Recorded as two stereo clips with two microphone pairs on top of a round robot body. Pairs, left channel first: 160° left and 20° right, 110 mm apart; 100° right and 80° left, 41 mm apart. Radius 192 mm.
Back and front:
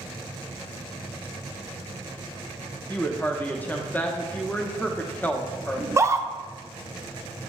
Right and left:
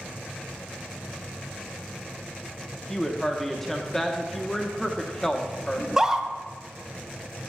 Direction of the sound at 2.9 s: 140° right.